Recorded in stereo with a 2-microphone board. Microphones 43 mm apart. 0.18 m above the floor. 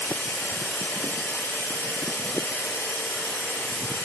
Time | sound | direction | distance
0.0 | running water | 70° left (ahead or behind) | 1.0 m